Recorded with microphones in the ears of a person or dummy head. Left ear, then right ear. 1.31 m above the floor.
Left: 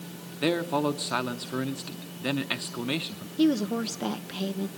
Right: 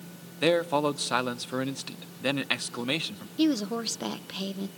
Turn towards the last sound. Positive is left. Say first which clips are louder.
# left 1 dB
turn(degrees=-15)  # may be behind; listen again after turning